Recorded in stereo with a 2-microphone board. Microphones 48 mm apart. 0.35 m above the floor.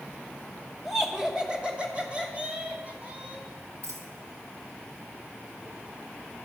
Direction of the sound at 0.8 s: 5° right (ahead or behind).